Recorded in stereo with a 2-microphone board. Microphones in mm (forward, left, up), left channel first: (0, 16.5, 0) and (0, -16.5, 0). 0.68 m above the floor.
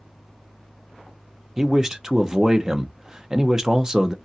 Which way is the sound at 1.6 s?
20° right (ahead or behind).